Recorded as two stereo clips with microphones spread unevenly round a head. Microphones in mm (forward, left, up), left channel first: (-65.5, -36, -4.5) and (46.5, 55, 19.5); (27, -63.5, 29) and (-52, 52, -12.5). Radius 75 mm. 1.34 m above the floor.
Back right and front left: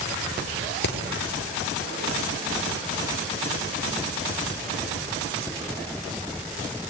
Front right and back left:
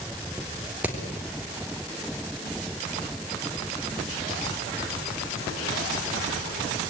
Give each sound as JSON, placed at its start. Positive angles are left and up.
{"t": 0.8, "sound": "hammering", "azimuth_deg": -155, "distance_m": 3.5}